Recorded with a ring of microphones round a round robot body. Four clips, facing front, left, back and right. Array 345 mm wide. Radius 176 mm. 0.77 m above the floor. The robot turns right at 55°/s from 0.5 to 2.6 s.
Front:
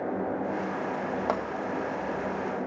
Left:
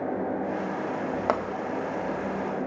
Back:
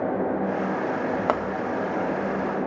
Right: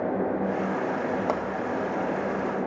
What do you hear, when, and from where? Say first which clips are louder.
1.3 s a pop: left 5 dB, back 4 dB; 150° left, 0.7 m; by 1.4 s 160° left, 0.7 m